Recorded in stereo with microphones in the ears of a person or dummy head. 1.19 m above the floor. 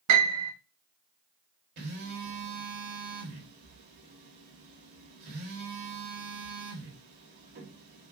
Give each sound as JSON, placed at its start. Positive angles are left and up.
{"t": 0.1, "sound": "a piano", "side_deg": -75, "distance_m": 1.2}
{"t": 1.8, "sound": "a phone buzzing", "side_deg": -55, "distance_m": 2.0}